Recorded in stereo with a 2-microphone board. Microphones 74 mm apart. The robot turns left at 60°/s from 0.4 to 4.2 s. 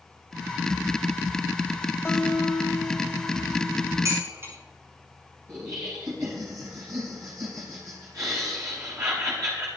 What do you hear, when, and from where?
2.0 s a guitar: 40° left, 2 m; by 4.2 s 90° right, 2 m
4.0 s dishes clattering: 45° right (ahead or behind), 5 m; by 4.5 s 35° right (ahead or behind), 5 m
5.5 s laughter: 50° right (ahead or behind), 3.5 m